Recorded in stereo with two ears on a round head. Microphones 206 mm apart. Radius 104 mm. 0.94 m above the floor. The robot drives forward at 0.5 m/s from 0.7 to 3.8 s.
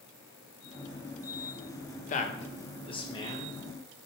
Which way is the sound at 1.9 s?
35° left (ahead or behind).